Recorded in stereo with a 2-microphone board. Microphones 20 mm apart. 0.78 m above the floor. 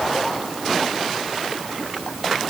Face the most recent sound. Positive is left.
No sound to turn to.